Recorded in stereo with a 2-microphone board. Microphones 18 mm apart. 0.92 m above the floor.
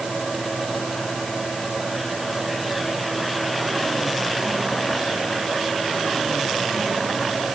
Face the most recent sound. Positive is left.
No sound to turn to.